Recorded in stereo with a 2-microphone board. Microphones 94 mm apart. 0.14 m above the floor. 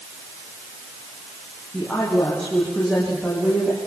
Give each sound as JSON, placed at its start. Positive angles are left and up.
{"t": 1.7, "sound": "a woman speaking", "side_deg": 10, "distance_m": 7.0}